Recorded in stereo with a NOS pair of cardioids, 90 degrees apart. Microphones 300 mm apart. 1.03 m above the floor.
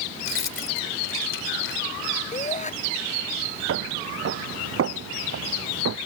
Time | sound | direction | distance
0.2 | keys jangling | 40° left | ?
2.3 | a shout | 25° left | ?
3.7 | footsteps | 50° right | ?